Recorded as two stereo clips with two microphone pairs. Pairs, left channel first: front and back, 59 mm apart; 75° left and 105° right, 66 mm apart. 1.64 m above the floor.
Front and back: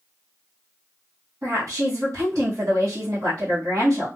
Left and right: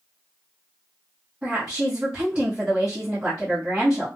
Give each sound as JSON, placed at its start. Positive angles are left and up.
{"t": 1.4, "sound": "a woman speaking", "azimuth_deg": -165, "distance_m": 0.9}